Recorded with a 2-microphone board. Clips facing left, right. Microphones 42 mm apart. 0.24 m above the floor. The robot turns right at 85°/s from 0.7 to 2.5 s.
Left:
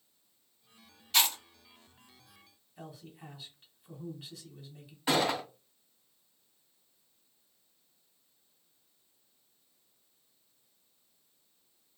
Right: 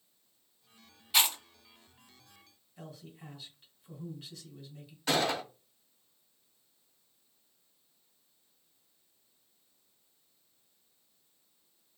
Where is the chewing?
10° right (ahead or behind), 1.5 m; by 1.4 s 15° right (ahead or behind), 1.5 m.